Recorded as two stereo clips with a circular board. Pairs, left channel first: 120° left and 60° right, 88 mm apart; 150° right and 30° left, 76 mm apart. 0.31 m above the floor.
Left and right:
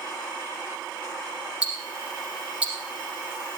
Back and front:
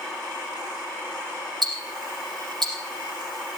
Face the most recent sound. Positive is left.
turn(degrees=15)